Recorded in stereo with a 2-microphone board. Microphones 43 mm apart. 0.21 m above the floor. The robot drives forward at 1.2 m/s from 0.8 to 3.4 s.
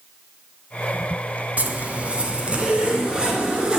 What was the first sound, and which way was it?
A zipper, 35° right (ahead or behind).